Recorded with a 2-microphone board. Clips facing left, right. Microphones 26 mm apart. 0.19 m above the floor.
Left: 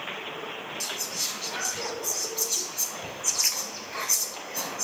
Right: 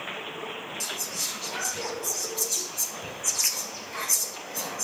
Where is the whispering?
20° left (ahead or behind), 1.4 m.